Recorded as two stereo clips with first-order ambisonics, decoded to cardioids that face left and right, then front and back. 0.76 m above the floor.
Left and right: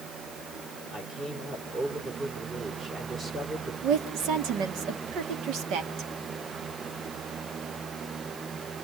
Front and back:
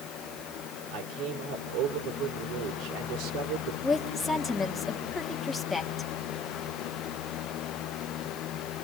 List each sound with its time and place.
0.9 s a man speaking: 150° right, 3 m
3.8 s a woman speaking: 75° right, 1.5 m